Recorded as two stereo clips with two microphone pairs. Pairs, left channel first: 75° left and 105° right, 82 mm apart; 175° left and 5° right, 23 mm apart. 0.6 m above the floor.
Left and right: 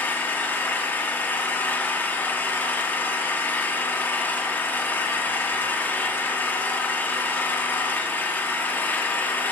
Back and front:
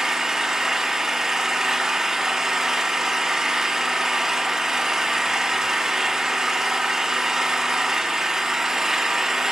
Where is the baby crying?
I don't hear a baby crying.